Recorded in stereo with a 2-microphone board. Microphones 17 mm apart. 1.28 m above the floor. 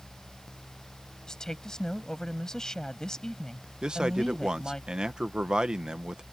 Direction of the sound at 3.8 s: 50° right (ahead or behind).